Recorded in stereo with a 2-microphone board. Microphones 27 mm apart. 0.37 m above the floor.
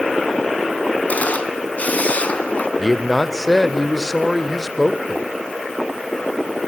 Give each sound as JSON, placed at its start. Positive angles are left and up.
{"t": 1.1, "sound": "a camera shutter", "side_deg": 65, "distance_m": 2.0}
{"t": 2.8, "sound": "a man speaking", "side_deg": 5, "distance_m": 0.9}